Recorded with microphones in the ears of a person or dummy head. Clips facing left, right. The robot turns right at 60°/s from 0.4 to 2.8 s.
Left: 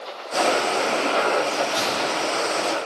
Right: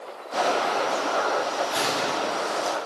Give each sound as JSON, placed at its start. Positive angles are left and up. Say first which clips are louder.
{"t": 1.7, "sound": "a gunshot", "louder": "left 2 dB", "azimuth_deg": -155, "distance_m": 7.0}